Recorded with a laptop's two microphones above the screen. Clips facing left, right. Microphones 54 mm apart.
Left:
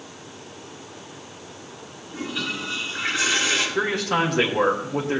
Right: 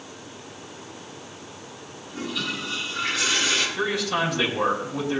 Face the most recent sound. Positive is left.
turn(degrees=55)  # may be behind; listen again after turning